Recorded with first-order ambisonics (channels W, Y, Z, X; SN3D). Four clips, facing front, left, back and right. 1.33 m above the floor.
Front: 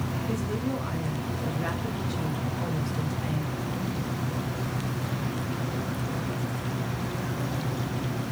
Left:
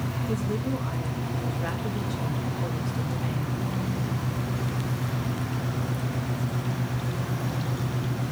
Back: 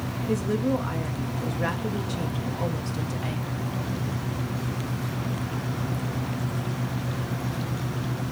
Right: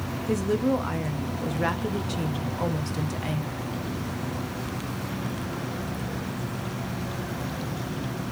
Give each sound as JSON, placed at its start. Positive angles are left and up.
{"t": 0.3, "sound": "a woman speaking", "azimuth_deg": -110, "distance_m": 0.9}